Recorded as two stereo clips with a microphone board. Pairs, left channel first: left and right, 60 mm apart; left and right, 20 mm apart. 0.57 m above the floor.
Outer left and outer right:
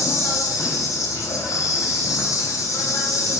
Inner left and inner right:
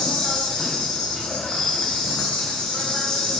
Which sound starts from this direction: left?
An insect, at 0.0 s.